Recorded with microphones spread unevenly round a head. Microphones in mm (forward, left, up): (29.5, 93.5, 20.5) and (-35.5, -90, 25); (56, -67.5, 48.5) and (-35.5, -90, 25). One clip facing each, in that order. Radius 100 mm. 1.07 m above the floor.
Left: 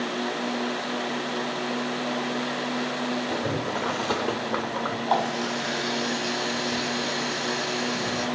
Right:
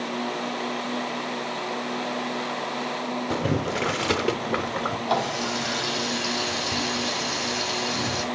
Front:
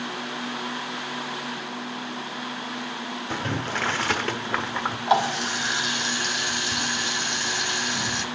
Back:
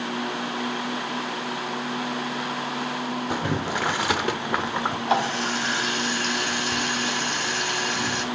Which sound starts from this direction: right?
Boiling, at 3.3 s.